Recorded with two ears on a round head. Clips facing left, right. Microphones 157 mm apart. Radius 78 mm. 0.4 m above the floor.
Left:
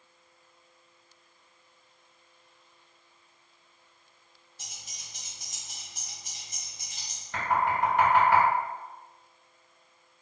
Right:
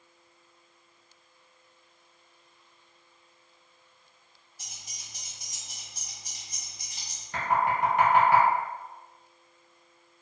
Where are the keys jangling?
25° left (ahead or behind), 1.5 m.